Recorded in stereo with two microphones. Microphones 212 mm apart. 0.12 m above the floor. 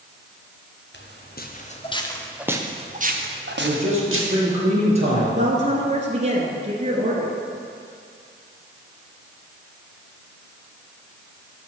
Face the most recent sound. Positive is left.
turn(degrees=-30)  # may be behind; listen again after turning